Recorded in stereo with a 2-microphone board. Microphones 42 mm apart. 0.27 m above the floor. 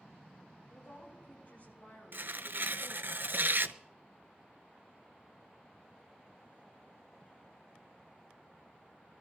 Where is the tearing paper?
60° right (ahead or behind), 0.6 m.